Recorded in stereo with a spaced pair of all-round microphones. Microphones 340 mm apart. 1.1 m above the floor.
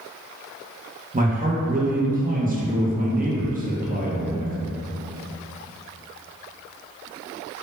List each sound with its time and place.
1.1 s a man speaking: 25° right (ahead or behind), 0.5 m